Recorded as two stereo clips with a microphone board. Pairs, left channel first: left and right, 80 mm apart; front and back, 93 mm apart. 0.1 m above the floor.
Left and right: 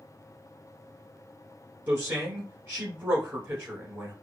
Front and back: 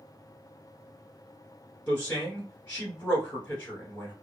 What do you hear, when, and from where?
1.9 s a man speaking: 60° right, 1.2 m